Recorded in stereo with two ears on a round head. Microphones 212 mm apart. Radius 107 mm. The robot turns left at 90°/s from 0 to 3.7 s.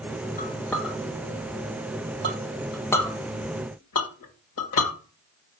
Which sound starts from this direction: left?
A clink, at 0.4 s.